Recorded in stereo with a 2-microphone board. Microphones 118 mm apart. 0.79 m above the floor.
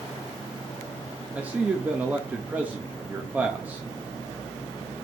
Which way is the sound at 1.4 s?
15° right (ahead or behind).